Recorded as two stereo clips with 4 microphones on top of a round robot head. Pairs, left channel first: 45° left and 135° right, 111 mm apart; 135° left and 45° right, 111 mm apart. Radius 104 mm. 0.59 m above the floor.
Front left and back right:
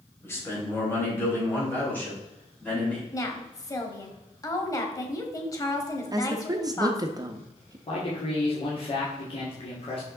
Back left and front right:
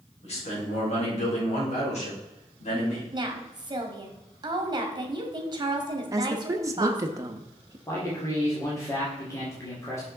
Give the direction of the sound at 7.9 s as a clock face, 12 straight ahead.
10 o'clock.